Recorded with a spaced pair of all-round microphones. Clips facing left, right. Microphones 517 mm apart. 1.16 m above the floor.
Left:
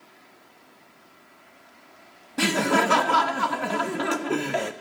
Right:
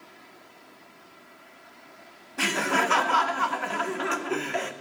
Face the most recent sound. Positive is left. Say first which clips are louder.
# left 6 dB
turn(degrees=60)  # may be behind; listen again after turning